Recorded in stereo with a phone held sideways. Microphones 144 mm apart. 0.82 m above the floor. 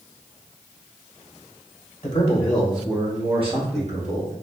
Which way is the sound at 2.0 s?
35° left (ahead or behind).